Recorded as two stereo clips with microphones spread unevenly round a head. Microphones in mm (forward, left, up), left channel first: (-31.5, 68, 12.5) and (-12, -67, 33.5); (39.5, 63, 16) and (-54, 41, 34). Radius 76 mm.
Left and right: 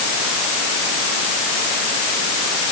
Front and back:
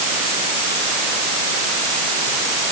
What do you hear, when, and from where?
Only background noise.